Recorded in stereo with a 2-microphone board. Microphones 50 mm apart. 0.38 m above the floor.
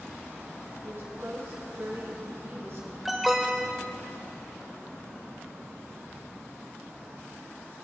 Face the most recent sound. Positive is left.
turn(degrees=-5)  # may be behind; listen again after turning